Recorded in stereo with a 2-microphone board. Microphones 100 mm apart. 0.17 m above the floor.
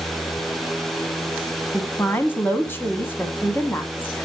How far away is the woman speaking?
About 1.1 m.